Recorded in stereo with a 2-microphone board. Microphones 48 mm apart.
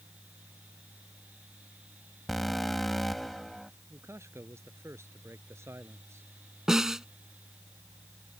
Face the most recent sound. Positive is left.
turn(degrees=-10)  # may be behind; listen again after turning